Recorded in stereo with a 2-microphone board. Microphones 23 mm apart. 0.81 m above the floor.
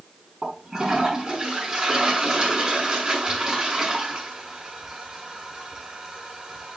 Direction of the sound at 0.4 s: 40° right (ahead or behind).